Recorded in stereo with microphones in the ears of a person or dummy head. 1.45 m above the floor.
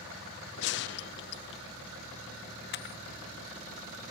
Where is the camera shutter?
55° left (ahead or behind), 0.6 m.